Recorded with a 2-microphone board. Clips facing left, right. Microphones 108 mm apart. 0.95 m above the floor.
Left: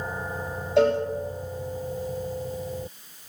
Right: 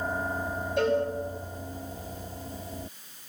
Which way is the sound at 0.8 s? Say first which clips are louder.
Left 5 dB; 80° left.